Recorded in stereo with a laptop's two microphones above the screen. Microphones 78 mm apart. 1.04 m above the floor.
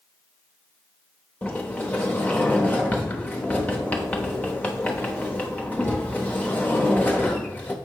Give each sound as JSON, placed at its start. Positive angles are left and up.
{"t": 1.4, "sound": "a sliding door", "side_deg": 20, "distance_m": 0.9}